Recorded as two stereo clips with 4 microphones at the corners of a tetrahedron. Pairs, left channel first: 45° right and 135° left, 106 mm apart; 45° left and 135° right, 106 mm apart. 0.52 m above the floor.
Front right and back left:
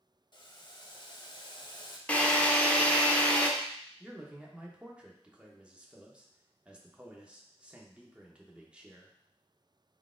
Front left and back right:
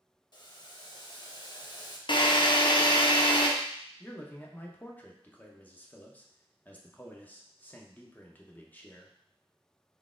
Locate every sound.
0.3 s boiling: straight ahead, 0.6 m
2.1 s a drill: 25° left, 0.6 m
4.0 s a man speaking: 80° left, 0.6 m